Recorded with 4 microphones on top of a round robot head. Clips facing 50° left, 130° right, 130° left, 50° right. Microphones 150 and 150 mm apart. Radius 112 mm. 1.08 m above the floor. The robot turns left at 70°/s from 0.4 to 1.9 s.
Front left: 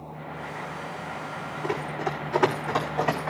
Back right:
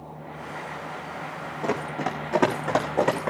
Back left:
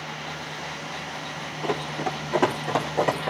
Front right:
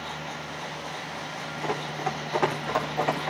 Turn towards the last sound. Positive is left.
turn(degrees=-175)